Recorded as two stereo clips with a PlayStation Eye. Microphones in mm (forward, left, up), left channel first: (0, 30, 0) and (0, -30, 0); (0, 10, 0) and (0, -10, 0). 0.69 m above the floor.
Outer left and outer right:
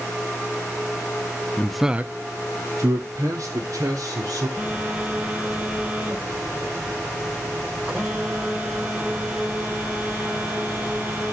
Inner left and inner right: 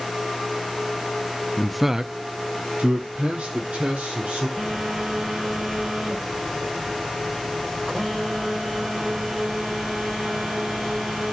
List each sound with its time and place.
1.6 s a man speaking: 20° left (ahead or behind), 0.5 m; by 4.5 s 75° right (ahead or behind), 2.5 m
4.6 s a phone buzzing: 15° right (ahead or behind), 3.5 m